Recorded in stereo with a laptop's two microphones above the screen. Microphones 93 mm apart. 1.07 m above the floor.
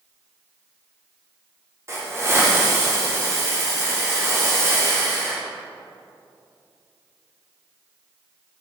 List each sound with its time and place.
1.9 s a hiss: 30° right (ahead or behind), 1.0 m